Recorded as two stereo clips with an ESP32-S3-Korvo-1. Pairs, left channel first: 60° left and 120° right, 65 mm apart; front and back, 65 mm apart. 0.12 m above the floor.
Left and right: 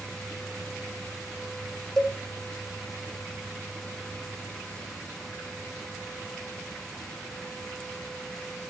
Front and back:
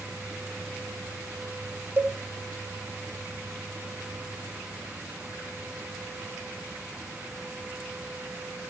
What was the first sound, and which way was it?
A cowbell, 140° left.